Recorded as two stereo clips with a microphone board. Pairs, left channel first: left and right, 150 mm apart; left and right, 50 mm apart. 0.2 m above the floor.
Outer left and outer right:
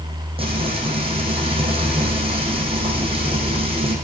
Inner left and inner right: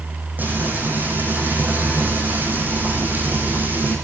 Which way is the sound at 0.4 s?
35° right (ahead or behind).